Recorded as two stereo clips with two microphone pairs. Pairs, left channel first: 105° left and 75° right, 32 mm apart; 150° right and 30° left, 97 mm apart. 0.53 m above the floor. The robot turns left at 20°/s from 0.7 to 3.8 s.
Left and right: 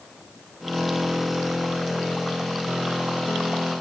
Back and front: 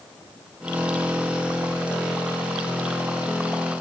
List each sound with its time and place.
Only background noise.